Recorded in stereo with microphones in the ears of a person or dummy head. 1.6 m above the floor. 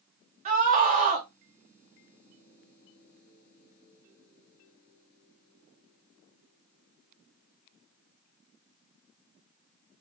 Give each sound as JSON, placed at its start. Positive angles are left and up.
{"t": 0.5, "sound": "a scream", "side_deg": -40, "distance_m": 1.0}